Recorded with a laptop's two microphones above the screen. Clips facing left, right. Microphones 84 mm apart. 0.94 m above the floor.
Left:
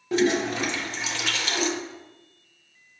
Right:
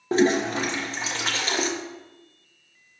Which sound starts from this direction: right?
A toilet flushing, at 0.1 s.